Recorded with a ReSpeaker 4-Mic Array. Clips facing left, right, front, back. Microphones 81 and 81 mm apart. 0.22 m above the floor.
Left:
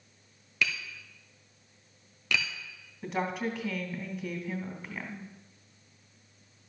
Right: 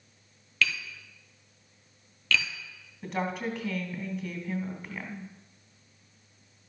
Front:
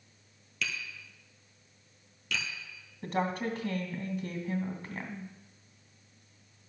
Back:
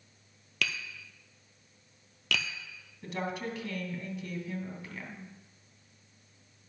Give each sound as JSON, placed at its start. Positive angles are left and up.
{"t": 0.6, "sound": "tapping", "azimuth_deg": 165, "distance_m": 1.3}
{"t": 3.0, "sound": "a woman speaking", "azimuth_deg": 0, "distance_m": 1.8}